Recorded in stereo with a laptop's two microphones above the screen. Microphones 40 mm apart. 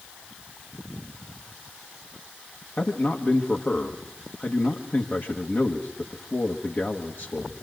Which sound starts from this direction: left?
A man speaking, at 2.8 s.